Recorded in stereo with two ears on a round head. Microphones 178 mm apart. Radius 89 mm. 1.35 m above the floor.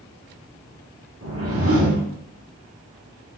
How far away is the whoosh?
About 1.5 m.